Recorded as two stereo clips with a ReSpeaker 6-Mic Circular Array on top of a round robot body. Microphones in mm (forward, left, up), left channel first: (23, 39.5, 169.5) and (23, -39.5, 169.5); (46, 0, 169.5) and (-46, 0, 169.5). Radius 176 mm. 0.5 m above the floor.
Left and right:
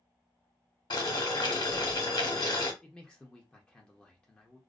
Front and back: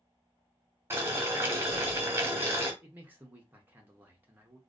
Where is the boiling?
120° left, 1.0 m.